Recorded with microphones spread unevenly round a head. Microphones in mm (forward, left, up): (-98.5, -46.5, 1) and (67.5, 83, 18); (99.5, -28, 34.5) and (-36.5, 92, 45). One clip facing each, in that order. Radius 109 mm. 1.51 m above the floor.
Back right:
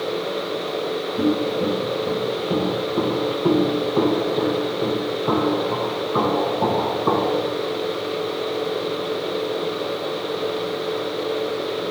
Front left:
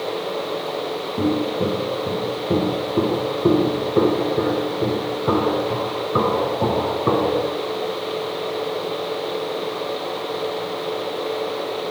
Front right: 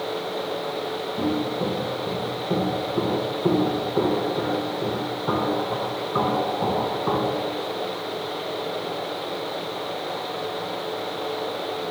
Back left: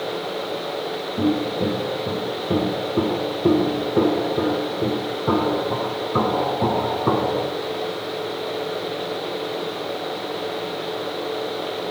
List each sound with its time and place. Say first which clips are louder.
1.2 s footsteps: even, back left 4 dB; 80° left, 6.5 m; by 7.5 s 105° left, 4 m